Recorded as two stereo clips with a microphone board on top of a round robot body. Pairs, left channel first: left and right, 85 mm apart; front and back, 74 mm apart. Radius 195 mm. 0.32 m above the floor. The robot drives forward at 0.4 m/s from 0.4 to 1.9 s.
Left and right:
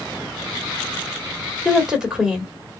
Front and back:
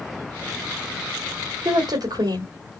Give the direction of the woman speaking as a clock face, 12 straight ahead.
6 o'clock.